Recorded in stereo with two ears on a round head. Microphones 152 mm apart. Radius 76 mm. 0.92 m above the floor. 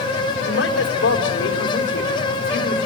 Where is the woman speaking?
80° left, 4 m.